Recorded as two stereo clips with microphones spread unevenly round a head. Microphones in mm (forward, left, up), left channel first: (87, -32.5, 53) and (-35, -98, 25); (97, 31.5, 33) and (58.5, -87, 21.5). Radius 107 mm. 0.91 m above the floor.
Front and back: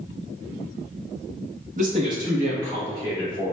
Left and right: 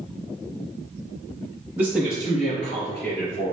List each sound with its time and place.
1.8 s a man speaking: straight behind, 0.8 m; by 3.5 s 90° left, 1.8 m